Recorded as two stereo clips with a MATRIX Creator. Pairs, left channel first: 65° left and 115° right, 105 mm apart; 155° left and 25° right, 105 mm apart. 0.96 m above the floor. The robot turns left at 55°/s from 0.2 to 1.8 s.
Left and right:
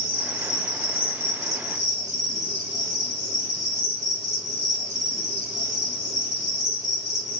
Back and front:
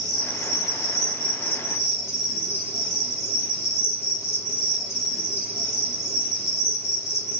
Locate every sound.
0.0 s an insect: 20° right, 1.5 m; by 7.4 s 105° right, 1.5 m